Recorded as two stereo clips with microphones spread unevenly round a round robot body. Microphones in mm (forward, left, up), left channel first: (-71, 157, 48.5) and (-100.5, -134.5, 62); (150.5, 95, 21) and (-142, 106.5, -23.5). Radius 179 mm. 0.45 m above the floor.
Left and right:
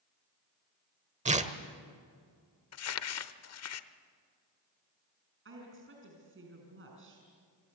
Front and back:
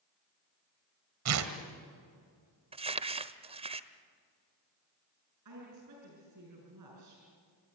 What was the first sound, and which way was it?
Tearing paper, 160° right.